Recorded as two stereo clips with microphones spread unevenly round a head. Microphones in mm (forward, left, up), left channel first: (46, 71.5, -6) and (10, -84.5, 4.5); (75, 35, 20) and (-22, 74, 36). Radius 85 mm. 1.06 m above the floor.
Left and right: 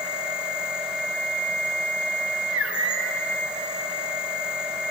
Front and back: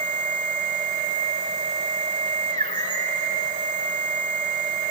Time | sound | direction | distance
0.0 | a machine running | 175° left | 2 m